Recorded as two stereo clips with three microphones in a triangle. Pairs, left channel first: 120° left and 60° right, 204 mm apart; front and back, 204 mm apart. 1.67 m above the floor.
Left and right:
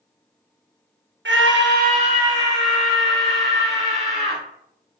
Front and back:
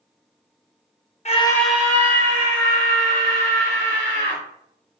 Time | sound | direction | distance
1.2 | a scream | 50° right | 0.6 m